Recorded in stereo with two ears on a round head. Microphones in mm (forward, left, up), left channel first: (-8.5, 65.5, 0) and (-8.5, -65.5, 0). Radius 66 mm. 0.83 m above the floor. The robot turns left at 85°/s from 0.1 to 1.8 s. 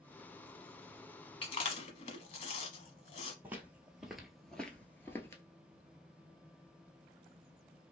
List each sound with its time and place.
1.4 s chewing: 35° left (ahead or behind), 0.9 m; by 3.3 s 45° left (ahead or behind), 0.9 m
3.4 s footsteps: 10° right (ahead or behind), 1.0 m; by 5.4 s 20° left (ahead or behind), 0.9 m